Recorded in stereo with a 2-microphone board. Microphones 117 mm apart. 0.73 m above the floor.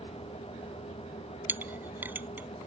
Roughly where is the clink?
Centre.